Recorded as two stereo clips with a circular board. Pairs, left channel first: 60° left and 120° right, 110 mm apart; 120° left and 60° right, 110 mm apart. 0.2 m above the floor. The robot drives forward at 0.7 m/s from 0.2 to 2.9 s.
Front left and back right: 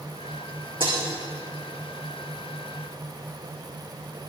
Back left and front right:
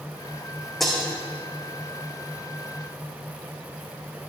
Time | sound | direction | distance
0.8 | breaking glass | 150° right | 4.5 m